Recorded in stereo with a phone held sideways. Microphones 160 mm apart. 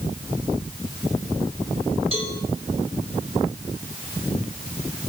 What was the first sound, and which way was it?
A cowbell, 35° right (ahead or behind).